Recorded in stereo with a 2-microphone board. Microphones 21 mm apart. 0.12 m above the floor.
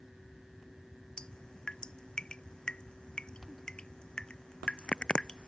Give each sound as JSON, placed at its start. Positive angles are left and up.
{"t": 1.2, "sound": "dripping", "side_deg": 45}